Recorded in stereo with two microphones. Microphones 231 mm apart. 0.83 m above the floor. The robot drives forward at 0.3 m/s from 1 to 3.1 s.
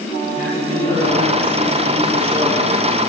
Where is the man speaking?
35° left (ahead or behind), 3.5 m; by 3.0 s 30° left (ahead or behind), 4 m.